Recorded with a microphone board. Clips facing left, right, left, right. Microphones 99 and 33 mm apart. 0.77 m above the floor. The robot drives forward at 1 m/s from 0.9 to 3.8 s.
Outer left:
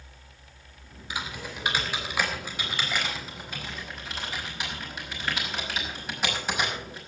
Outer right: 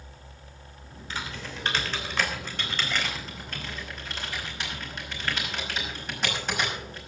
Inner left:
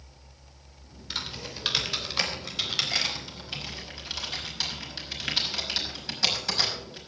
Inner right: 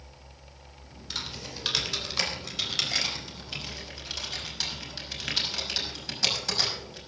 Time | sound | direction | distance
1.1 | typing on a keyboard | 10° left (ahead or behind) | 3 m